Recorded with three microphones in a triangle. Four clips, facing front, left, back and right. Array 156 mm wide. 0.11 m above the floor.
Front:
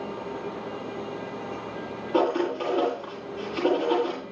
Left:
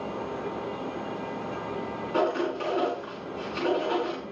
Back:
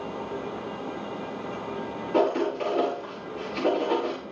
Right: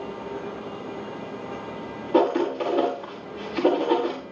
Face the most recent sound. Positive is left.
turn(degrees=-85)